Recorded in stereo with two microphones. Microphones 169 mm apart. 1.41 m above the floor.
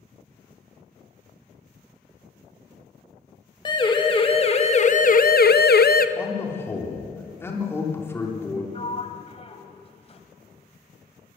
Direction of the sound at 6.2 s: 15° left (ahead or behind).